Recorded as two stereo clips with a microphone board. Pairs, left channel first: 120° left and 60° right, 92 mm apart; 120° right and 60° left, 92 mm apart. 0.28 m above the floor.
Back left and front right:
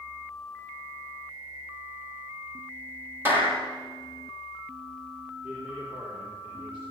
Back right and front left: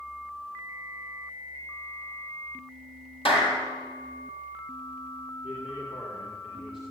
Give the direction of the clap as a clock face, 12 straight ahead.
4 o'clock.